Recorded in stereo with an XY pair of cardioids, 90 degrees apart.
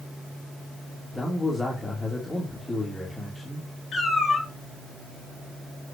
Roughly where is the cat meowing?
Ahead left.